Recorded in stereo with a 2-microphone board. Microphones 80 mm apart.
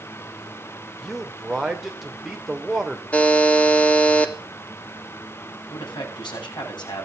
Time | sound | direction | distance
1.0 | a man speaking | 5° right (ahead or behind) | 3 m
3.1 | a buzzer | 15° left (ahead or behind) | 1.6 m
5.7 | a man speaking | 65° left (ahead or behind) | 8 m